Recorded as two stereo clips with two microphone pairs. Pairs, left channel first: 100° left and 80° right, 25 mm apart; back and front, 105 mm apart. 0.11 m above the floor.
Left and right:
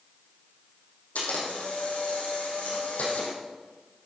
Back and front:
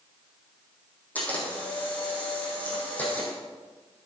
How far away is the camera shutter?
About 4 m.